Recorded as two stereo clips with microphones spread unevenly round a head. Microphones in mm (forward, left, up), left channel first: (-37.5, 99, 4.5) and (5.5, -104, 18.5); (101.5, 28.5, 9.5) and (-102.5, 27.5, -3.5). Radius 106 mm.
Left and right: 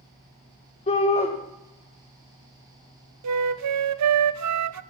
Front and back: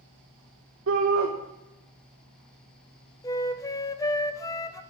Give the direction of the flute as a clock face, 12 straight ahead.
3 o'clock.